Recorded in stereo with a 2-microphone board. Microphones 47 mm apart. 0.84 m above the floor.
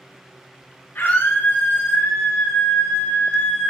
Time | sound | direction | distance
0.9 | a scream | 70° left (ahead or behind) | 2 m